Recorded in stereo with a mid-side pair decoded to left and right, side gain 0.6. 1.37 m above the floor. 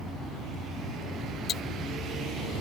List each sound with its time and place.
1.5 s ticking: 40° left